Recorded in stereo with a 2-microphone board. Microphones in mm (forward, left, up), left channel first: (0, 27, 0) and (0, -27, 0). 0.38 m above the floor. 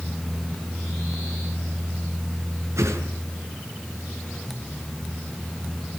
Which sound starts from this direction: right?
A whoosh, at 2.8 s.